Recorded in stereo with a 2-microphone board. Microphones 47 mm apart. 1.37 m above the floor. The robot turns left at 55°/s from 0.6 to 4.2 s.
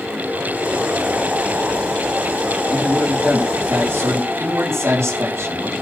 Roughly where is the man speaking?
Ahead.